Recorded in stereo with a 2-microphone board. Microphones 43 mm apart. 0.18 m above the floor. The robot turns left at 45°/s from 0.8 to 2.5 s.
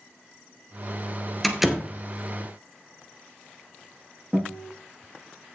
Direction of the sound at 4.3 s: 30° right (ahead or behind).